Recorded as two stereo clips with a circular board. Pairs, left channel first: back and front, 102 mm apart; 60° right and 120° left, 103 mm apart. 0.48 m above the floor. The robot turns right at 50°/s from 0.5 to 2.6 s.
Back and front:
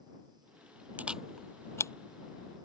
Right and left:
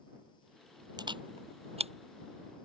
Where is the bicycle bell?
No bicycle bell in this recording.